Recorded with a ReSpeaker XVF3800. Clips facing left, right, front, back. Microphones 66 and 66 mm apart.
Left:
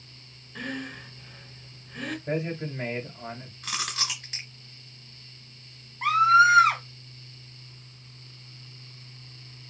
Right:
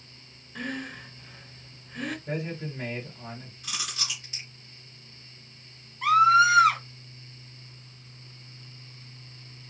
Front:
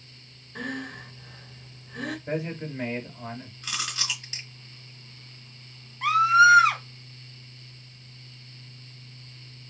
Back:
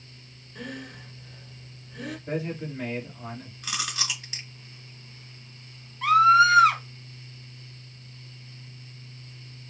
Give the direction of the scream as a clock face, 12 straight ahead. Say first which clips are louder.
Even, back 1 dB; 10 o'clock.